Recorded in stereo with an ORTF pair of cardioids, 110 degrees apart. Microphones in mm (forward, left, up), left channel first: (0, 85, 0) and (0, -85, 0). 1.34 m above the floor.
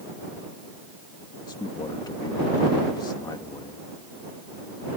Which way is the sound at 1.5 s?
25° left.